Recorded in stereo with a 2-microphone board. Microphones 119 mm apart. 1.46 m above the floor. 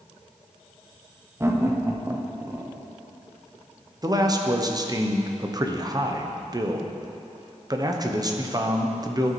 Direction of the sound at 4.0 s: 30° right (ahead or behind).